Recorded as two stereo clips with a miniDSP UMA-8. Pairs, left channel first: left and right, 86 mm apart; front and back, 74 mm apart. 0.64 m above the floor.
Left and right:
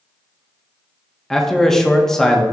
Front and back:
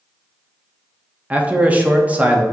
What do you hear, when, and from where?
1.3 s a man speaking: 160° left, 0.5 m